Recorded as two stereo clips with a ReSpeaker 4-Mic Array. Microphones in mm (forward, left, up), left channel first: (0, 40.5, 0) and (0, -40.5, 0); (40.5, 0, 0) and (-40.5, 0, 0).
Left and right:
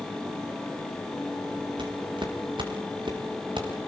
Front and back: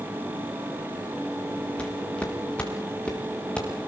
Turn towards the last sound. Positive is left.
turn(degrees=-75)